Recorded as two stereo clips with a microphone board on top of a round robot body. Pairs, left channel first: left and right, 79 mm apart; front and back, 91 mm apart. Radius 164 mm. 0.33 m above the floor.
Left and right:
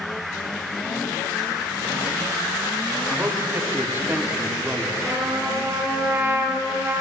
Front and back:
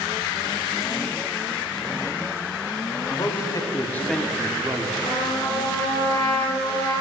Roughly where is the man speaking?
Ahead right.